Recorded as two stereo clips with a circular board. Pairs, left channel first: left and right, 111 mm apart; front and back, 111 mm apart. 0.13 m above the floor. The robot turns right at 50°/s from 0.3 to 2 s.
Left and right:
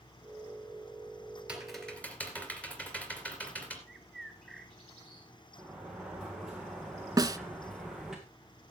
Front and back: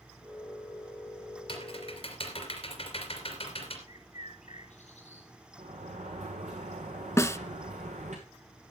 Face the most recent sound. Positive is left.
turn(degrees=-55)